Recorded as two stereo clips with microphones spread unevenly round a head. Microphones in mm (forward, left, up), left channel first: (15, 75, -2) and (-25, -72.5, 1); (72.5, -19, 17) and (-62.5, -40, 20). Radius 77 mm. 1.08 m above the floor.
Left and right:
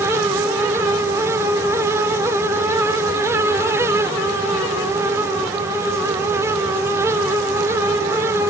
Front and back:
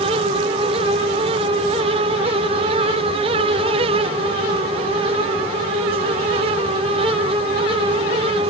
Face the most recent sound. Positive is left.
No sound to turn to.